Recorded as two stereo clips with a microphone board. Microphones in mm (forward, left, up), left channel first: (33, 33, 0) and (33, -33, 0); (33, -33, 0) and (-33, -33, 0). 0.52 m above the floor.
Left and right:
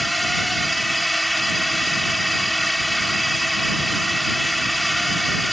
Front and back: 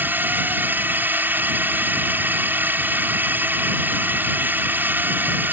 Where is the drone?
Straight behind.